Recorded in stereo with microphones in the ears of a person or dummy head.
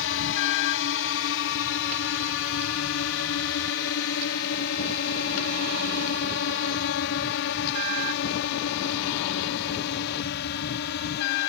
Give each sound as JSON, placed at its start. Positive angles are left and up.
{"t": 0.0, "sound": "a drone", "side_deg": 65}